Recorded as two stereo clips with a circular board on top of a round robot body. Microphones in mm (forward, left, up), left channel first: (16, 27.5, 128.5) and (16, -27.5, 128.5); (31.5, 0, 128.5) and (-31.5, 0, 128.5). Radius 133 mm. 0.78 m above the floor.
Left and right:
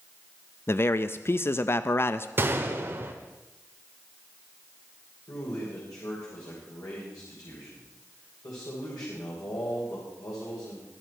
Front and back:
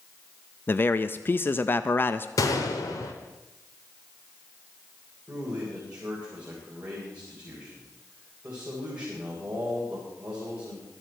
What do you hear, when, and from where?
0.7 s a man speaking: 50° left, 0.5 m
2.4 s a gunshot: 35° right, 0.8 m
5.3 s a man speaking: 105° left, 3.5 m